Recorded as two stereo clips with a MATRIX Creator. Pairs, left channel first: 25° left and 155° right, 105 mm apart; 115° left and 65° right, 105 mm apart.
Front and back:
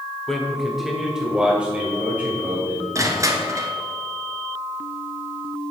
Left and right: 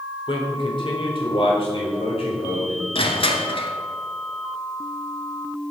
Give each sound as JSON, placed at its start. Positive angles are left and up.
{"t": 0.3, "sound": "a man speaking", "azimuth_deg": 105, "distance_m": 1.5}
{"t": 3.0, "sound": "crushing", "azimuth_deg": 145, "distance_m": 1.3}